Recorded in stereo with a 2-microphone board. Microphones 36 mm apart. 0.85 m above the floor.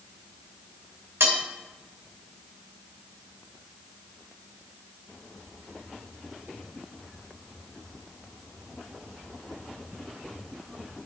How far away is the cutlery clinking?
About 2 m.